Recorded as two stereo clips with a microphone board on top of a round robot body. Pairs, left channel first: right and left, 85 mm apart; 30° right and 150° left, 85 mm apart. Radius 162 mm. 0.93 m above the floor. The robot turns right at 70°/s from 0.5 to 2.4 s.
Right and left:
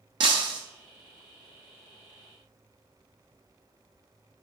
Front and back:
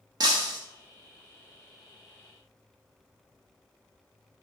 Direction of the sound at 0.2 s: 115° left.